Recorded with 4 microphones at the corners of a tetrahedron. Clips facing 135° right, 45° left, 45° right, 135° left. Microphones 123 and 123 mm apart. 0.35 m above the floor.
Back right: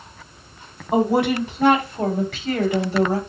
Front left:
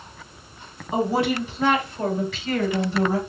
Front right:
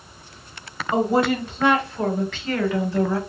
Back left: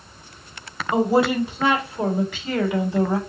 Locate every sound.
0.9 s a woman speaking: 140° right, 3 m; by 3.2 s 160° right, 2 m